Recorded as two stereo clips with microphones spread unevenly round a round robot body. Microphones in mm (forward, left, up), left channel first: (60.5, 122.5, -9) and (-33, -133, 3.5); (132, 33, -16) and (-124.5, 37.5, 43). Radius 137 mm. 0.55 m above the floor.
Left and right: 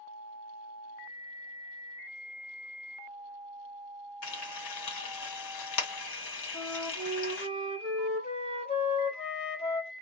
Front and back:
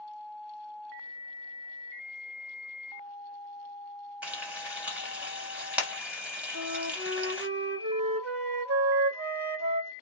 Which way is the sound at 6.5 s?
140° left.